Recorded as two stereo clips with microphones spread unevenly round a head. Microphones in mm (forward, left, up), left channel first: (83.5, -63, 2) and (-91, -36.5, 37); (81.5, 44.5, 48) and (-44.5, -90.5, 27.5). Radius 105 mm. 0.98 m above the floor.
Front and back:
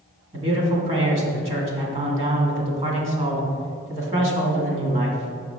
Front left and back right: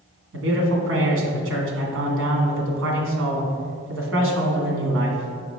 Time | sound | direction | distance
0.3 | a man speaking | 135° right | 1.7 m